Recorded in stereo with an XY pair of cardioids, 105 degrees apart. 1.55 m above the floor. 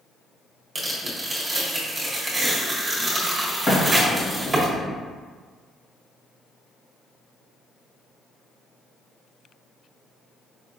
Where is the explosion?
35° left, 1.9 m.